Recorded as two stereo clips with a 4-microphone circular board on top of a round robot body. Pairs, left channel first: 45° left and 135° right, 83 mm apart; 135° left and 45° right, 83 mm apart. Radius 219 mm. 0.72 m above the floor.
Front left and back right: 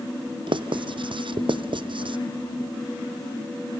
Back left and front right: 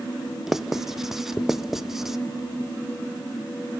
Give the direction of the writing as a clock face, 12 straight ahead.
4 o'clock.